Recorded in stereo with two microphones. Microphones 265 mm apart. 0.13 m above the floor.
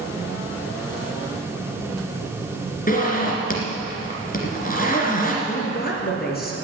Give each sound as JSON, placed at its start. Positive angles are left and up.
{"t": 2.9, "sound": "a zipper", "side_deg": 35, "distance_m": 2.0}
{"t": 5.5, "sound": "a woman speaking", "side_deg": 35, "distance_m": 2.5}